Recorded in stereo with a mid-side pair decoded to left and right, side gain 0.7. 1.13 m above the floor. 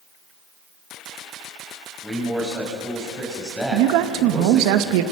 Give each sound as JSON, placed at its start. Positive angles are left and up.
{"t": 2.0, "sound": "a man speaking", "azimuth_deg": -5, "distance_m": 6.0}
{"t": 3.7, "sound": "a man speaking", "azimuth_deg": -70, "distance_m": 1.8}